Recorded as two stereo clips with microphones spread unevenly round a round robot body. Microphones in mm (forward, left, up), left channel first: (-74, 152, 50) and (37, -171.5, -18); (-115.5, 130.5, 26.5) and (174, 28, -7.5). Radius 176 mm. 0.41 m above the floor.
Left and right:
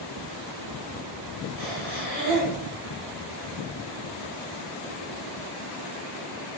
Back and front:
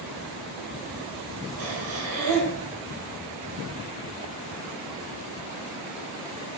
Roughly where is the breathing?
Ahead.